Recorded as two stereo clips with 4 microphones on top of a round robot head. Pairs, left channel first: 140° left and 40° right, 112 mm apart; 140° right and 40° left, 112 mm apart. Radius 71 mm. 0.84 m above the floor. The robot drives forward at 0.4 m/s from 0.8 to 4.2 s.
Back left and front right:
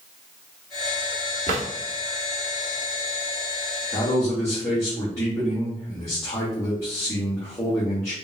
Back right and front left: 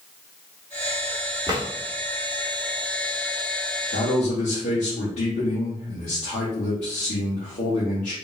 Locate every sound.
1.5 s a drawer: 20° right, 1.2 m
3.9 s a man speaking: 155° right, 1.3 m